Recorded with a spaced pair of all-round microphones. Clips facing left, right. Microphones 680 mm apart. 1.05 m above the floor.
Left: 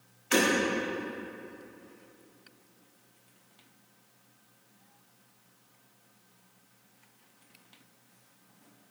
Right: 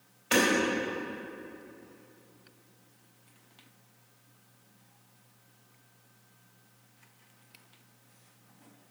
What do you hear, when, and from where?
0.3 s hammering: 75° right (ahead or behind), 5 m